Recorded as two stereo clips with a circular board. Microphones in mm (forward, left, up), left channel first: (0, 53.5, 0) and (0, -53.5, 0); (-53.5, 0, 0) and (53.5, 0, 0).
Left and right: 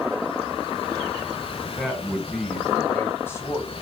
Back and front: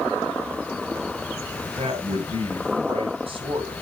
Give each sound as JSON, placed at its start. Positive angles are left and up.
{"t": 1.8, "sound": "a man speaking", "azimuth_deg": -10, "distance_m": 3.5}